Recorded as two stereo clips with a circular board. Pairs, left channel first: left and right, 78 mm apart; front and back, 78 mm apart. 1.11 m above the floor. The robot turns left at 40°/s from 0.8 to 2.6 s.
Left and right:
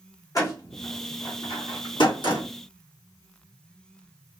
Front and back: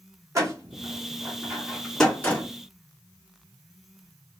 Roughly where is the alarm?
No alarm in this recording.